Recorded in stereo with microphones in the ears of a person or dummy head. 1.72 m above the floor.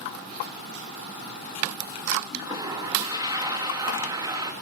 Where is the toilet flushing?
25° right (ahead or behind), 2.5 m.